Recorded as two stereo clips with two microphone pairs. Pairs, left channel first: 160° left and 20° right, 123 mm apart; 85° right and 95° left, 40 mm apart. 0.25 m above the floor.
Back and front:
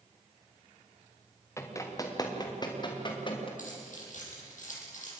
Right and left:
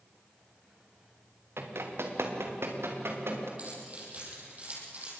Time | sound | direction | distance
1.6 | running footsteps | 90° left | 3.5 m
3.6 | keys jangling | 145° left | 6.5 m